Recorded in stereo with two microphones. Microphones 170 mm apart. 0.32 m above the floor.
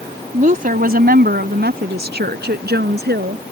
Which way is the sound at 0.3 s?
45° right (ahead or behind).